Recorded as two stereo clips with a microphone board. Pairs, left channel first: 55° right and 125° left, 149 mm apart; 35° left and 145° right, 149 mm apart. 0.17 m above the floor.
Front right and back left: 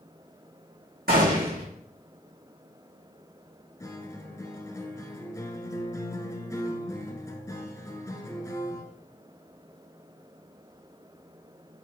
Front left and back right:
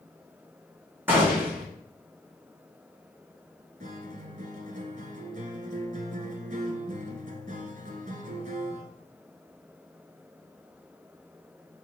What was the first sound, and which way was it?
A gunshot, 140° left.